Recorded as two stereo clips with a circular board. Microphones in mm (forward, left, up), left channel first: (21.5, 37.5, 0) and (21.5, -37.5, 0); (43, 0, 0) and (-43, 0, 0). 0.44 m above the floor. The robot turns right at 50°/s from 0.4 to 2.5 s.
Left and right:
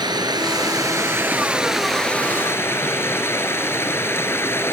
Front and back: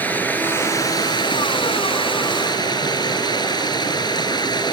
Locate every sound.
0.0 s running water: 70° right; by 4.7 s 35° left